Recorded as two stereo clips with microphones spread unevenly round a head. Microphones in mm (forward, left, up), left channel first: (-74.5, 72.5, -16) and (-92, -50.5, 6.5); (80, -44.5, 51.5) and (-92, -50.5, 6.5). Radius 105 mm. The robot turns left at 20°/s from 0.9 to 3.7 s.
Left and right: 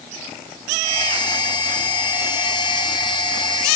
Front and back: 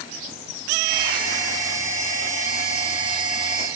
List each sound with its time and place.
Only background noise.